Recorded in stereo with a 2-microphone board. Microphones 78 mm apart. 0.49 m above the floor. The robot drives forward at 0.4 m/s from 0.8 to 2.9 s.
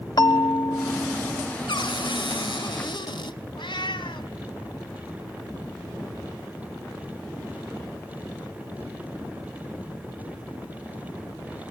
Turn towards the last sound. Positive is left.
turn(degrees=75)  # may be behind; listen again after turning